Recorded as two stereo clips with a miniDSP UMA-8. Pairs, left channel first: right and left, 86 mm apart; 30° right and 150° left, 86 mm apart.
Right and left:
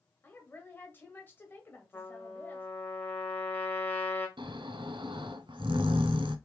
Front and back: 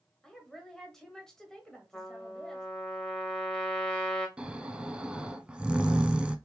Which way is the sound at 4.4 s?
70° left.